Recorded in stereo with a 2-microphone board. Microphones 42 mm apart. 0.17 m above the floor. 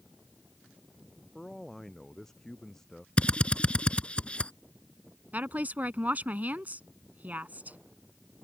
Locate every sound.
1.4 s a man speaking: 10° left (ahead or behind)
3.2 s a drill: 30° left (ahead or behind)
5.3 s a woman speaking: 40° right (ahead or behind)